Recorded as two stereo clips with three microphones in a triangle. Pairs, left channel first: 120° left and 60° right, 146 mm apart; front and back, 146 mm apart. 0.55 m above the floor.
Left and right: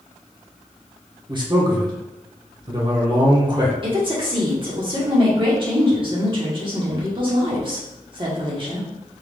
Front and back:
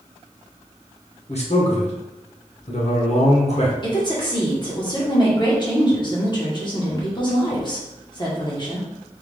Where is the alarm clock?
No alarm clock in this recording.